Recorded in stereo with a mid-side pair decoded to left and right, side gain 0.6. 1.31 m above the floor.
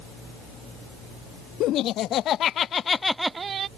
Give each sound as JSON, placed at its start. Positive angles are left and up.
{"t": 1.6, "sound": "laughter", "azimuth_deg": 60}